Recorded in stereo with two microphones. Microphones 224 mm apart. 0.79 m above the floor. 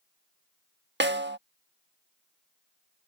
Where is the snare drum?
50° right (ahead or behind).